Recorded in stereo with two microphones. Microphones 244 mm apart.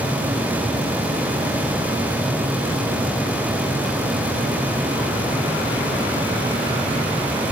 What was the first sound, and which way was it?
Only background noise.